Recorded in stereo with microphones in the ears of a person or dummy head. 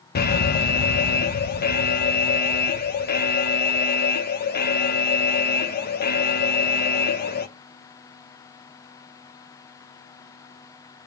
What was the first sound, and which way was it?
An alarm, 45° left (ahead or behind).